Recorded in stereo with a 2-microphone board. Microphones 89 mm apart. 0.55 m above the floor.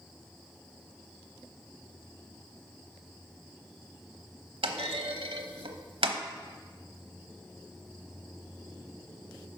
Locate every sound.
4.6 s a clunk: 85° right, 1.0 m